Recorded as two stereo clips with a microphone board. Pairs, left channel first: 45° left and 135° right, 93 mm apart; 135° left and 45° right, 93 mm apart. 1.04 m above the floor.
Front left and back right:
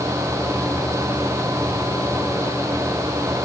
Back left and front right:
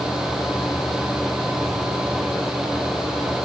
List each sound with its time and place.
Only background noise.